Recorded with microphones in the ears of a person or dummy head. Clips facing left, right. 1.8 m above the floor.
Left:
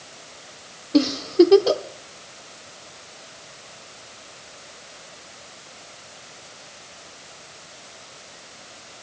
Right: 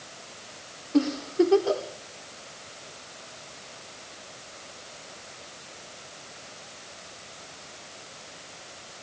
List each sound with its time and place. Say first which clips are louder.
0.9 s a giggle: left 7 dB; 50° left (ahead or behind), 0.9 m